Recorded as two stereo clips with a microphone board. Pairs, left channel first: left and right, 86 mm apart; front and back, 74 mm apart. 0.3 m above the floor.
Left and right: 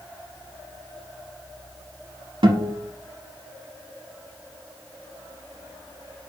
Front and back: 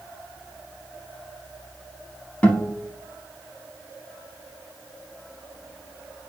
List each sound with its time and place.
2.4 s a guitar: 75° right, 0.6 m